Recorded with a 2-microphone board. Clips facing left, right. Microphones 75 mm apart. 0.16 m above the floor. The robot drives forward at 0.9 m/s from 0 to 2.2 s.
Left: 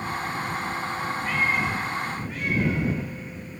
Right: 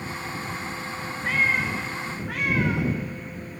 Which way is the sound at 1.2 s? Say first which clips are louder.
Right 2 dB; 45° right (ahead or behind).